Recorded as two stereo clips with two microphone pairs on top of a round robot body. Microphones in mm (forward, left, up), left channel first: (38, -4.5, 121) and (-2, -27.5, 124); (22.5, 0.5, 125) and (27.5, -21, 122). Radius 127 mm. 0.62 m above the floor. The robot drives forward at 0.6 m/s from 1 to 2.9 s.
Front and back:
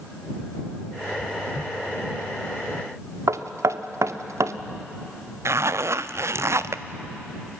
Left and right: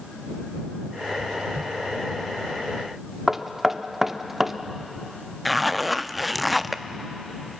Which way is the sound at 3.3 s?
150° right.